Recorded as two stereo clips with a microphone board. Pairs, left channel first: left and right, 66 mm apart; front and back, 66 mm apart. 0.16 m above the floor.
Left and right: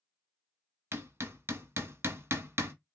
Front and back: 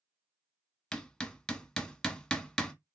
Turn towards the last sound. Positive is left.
turn(degrees=-70)